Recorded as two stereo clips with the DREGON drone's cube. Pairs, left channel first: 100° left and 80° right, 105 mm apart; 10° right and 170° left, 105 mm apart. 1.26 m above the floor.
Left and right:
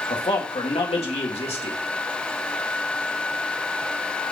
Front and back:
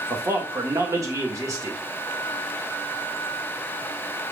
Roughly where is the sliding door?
I don't hear a sliding door.